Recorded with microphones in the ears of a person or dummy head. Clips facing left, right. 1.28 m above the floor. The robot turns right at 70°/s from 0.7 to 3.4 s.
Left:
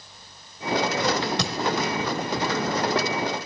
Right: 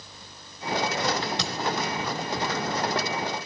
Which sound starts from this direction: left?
A thud, at 1.4 s.